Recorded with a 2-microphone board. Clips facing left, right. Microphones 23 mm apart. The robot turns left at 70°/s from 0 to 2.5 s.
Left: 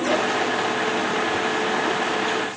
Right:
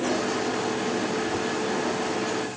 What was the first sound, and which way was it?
Only background noise.